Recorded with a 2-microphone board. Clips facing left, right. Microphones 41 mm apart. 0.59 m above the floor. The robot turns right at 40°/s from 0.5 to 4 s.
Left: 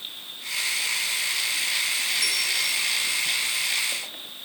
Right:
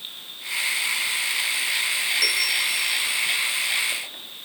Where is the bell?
60° right (ahead or behind), 1.8 m; by 3.0 s 65° right (ahead or behind), 1.8 m.